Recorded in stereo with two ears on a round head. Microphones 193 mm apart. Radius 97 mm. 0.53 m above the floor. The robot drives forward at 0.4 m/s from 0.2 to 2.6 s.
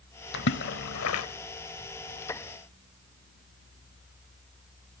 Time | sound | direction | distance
0.3 | a splash | 50° left (ahead or behind) | 1.1 m